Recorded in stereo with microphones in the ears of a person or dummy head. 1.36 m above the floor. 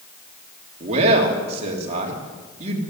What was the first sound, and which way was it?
A man speaking, 40° right (ahead or behind).